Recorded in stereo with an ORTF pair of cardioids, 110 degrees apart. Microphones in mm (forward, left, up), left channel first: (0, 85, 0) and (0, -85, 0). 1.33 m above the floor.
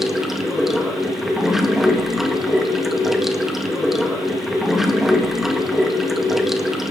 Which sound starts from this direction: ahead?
Running water, at 0.0 s.